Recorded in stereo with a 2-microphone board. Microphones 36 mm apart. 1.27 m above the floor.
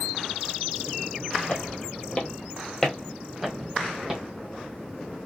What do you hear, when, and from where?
1.5 s footsteps: 45° left (ahead or behind), 1.8 m; by 4.2 s 15° right (ahead or behind), 2.5 m